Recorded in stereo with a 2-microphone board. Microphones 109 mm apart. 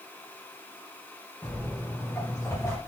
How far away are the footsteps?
About 5 m.